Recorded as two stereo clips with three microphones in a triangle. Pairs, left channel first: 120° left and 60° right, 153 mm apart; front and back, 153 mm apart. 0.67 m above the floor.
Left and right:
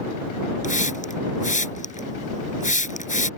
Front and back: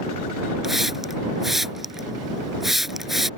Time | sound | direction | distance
0.6 | a hiss | 90° left | ?